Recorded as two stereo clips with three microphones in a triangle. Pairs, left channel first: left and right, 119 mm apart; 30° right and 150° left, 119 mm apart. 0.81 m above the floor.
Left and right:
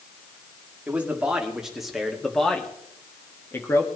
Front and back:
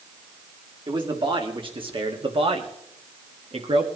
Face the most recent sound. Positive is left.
turn(degrees=150)